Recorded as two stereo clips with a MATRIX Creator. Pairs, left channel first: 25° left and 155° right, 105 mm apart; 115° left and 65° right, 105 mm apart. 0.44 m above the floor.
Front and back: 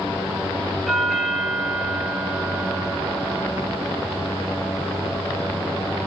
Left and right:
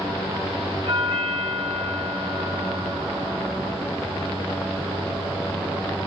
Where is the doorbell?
65° right, 4 m.